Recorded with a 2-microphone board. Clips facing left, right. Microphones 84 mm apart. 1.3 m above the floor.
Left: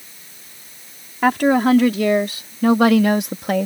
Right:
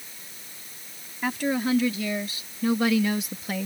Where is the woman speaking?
85° left; by 3.7 s 65° left (ahead or behind).